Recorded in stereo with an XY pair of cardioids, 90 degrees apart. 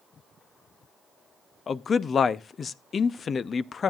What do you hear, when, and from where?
1.7 s a man speaking: 45° left, 0.6 m